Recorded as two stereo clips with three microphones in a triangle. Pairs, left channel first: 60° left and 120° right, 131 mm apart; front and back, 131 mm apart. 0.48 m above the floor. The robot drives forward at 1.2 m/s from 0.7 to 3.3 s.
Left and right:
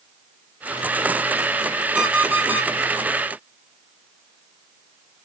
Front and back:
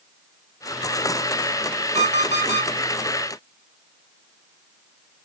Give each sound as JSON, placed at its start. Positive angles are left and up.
{"t": 1.9, "sound": "an alarm clock", "azimuth_deg": 160, "distance_m": 3.0}